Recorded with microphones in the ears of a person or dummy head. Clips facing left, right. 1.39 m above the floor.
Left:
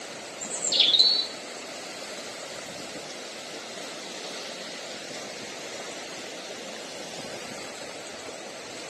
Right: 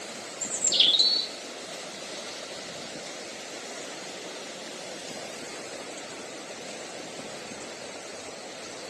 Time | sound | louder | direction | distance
0.4 | a bird | left 2 dB | 5° right (ahead or behind) | 0.6 m